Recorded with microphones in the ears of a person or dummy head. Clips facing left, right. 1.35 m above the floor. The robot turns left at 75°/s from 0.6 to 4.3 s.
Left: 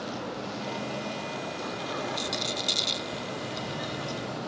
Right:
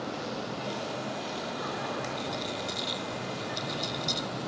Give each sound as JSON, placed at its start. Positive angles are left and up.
{"t": 2.2, "sound": "a rattle", "side_deg": 85}